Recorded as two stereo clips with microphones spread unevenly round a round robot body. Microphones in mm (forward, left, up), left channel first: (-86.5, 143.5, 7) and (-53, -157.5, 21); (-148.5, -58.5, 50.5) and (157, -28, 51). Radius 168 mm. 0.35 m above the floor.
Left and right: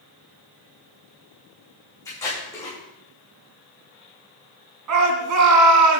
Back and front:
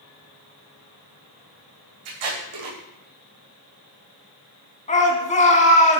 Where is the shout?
110° right, 4.5 m.